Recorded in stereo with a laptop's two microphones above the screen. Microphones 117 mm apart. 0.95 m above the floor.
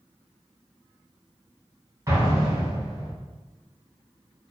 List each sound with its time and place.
2.1 s an explosion: 30° right (ahead or behind), 1.5 m